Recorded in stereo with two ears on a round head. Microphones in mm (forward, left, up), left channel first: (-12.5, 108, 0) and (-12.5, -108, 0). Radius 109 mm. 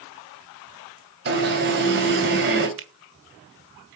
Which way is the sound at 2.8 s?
55° right (ahead or behind).